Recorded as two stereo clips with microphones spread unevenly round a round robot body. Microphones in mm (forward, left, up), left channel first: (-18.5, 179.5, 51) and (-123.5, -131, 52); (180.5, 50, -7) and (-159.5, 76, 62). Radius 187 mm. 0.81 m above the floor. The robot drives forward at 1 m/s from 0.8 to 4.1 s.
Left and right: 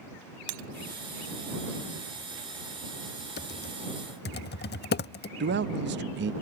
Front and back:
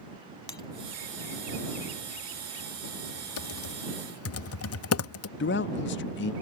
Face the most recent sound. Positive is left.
turn(degrees=-50)